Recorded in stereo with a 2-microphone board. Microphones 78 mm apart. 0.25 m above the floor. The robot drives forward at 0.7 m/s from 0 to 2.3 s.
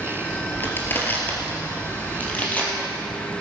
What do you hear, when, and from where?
0.6 s crushing: 25° left (ahead or behind), 2 m; by 2.7 s 20° left (ahead or behind), 3.5 m